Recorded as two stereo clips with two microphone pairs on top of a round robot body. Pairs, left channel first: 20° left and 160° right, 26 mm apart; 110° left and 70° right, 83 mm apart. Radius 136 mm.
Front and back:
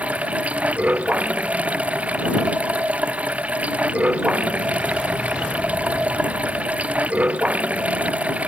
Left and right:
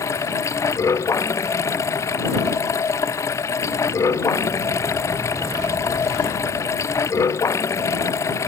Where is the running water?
170° left.